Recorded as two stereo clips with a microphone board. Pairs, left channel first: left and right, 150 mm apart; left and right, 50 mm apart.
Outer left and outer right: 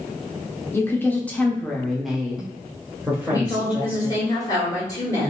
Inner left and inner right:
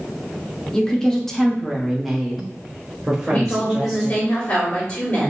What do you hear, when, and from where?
0.7 s a woman speaking: 15° left (ahead or behind), 0.9 m; by 4.3 s 15° right (ahead or behind), 2 m
3.3 s a woman speaking: 25° left (ahead or behind), 1.6 m